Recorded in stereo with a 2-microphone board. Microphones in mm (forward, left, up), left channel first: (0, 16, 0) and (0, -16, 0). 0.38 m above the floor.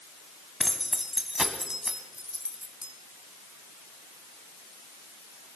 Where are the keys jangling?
5° left (ahead or behind), 1.4 m; by 2.9 s 35° right (ahead or behind), 2.0 m.